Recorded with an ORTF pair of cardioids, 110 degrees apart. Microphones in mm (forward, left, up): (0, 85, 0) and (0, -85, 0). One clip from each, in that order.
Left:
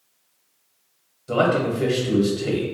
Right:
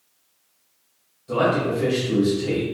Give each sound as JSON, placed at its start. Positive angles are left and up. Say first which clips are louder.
{"t": 1.3, "sound": "a man speaking", "louder": "left 1 dB", "azimuth_deg": 40, "distance_m": 0.8}